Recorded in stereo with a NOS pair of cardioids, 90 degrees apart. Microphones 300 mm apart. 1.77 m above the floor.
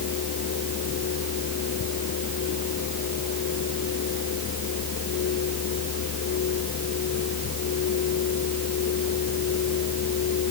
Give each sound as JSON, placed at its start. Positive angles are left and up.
{"t": 0.0, "sound": "a fan", "azimuth_deg": 55}